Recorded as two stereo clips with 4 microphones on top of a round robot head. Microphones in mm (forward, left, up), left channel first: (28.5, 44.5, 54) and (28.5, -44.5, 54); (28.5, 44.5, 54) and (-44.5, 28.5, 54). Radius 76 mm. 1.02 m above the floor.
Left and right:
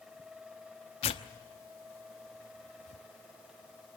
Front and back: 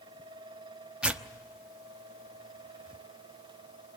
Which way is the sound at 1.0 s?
115° left.